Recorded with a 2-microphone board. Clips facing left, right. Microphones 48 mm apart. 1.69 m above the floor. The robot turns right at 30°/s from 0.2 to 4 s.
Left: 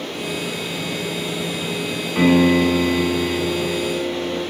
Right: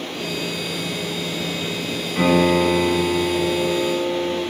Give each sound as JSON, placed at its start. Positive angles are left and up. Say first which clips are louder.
{"t": 2.1, "sound": "a piano", "louder": "left 2 dB", "azimuth_deg": 60, "distance_m": 1.7}